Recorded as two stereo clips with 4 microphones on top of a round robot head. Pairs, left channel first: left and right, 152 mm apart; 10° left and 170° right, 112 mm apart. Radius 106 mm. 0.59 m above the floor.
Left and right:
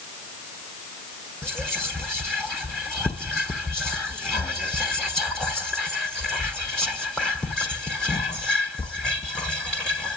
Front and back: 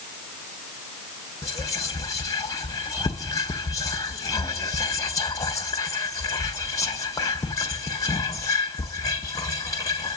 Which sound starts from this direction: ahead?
Whispering, at 1.4 s.